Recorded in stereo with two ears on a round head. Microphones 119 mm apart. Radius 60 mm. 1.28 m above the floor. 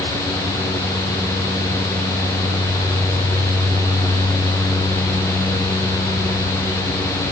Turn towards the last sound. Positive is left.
No sound to turn to.